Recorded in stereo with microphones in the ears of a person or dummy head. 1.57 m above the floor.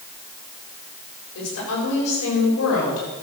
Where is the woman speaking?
80° left, 7 m.